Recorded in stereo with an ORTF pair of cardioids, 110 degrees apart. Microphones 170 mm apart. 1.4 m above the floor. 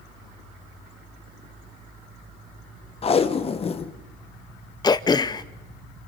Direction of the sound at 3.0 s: 35° left.